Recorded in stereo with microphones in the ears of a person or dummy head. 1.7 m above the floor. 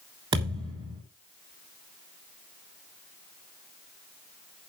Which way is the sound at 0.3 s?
30° right (ahead or behind).